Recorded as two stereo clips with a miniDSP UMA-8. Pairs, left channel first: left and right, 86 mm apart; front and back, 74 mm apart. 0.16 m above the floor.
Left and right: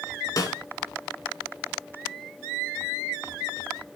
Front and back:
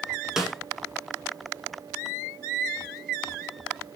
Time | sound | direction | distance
0.4 | a snare drum | 100° left | 1.6 m